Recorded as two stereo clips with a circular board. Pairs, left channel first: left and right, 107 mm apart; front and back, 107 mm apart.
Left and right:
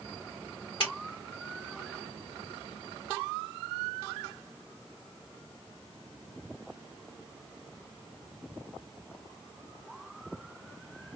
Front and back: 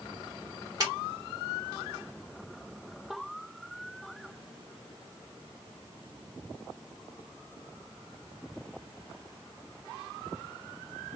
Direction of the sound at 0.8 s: 125° left.